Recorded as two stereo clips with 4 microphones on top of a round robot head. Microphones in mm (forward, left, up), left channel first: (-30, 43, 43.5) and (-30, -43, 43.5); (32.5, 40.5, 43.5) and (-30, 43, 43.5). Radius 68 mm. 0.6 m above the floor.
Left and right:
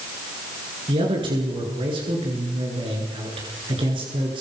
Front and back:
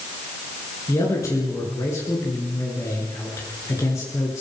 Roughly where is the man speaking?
Ahead right.